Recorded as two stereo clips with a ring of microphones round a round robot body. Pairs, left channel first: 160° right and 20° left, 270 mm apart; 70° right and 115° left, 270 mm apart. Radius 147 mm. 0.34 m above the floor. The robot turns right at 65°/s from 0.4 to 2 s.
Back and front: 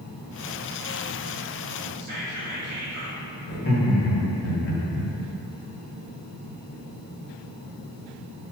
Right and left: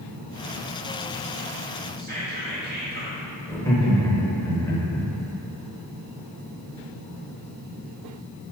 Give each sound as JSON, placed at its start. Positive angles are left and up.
{"t": 2.0, "sound": "whispering", "azimuth_deg": 60, "distance_m": 1.8}
{"t": 3.5, "sound": "laughter", "azimuth_deg": -145, "distance_m": 1.1}